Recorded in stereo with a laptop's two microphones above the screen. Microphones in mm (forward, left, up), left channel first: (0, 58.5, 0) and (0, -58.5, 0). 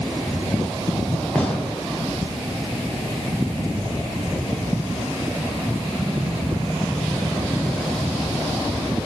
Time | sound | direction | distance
1.4 | a gunshot | 10° left (ahead or behind) | 0.7 m